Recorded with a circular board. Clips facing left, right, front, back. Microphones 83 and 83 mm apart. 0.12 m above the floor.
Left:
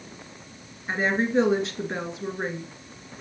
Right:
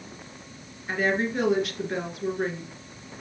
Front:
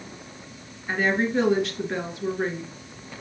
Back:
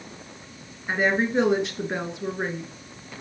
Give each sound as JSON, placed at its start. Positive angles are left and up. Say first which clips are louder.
{"t": 0.9, "sound": "a woman speaking", "louder": "left 1 dB, back 1 dB", "azimuth_deg": 130, "distance_m": 1.7}